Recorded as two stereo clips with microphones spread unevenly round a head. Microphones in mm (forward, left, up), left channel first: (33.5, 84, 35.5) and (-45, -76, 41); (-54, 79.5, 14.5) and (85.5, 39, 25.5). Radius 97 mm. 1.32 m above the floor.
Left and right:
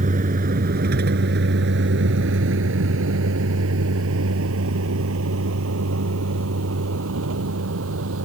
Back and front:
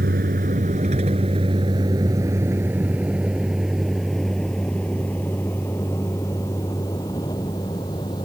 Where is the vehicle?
65° right; by 8.3 s 125° right.